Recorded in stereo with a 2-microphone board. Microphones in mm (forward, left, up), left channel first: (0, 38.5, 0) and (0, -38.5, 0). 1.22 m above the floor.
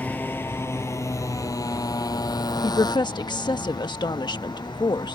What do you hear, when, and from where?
0.0 s a motorcycle: 20° left (ahead or behind); by 5.1 s 75° left (ahead or behind)
2.6 s a woman speaking: 80° left